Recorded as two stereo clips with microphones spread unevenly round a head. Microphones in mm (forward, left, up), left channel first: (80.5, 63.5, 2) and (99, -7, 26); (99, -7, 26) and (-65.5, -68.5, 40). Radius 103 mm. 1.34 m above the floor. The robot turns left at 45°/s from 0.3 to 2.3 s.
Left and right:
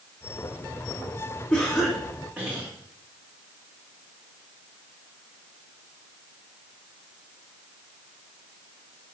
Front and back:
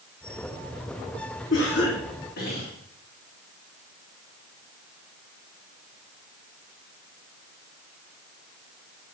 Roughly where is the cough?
Ahead left.